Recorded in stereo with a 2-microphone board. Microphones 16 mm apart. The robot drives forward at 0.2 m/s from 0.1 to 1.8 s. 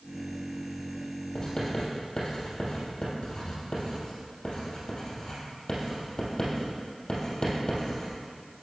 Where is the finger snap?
I don't hear a finger snap.